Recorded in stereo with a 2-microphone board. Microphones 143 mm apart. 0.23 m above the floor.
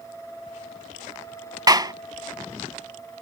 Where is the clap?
30° right (ahead or behind).